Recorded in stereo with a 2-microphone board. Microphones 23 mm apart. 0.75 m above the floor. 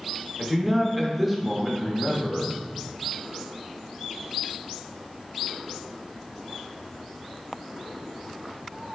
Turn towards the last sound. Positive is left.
turn(degrees=-5)  # may be behind; listen again after turning